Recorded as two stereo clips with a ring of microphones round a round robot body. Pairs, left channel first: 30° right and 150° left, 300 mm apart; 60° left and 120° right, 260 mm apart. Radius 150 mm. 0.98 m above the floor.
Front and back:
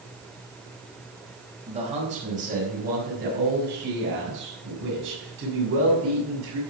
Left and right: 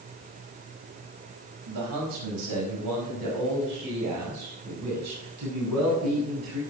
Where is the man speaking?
140° right, 5 m; by 6.6 s 165° right, 7 m.